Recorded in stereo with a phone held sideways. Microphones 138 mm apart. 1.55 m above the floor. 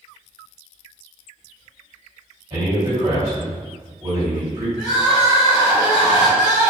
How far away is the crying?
About 0.9 m.